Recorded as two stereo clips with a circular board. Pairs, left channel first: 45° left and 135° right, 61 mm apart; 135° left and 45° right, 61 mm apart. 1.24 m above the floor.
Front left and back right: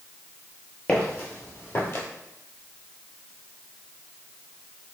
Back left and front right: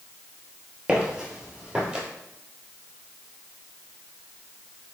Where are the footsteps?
15° left, 1.3 m; by 2.0 s 20° left, 1.7 m.